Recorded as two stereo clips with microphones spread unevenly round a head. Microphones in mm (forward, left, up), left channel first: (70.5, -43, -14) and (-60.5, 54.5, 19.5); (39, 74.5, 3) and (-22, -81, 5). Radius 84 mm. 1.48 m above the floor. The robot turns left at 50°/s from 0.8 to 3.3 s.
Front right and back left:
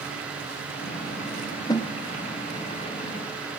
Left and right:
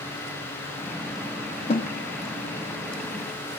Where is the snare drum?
35° left, 0.6 m; by 1.9 s 25° left, 0.6 m.